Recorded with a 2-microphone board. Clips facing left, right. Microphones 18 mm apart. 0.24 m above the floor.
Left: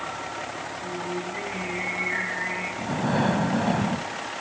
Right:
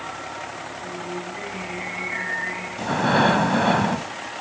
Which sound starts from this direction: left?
Singing, at 0.8 s.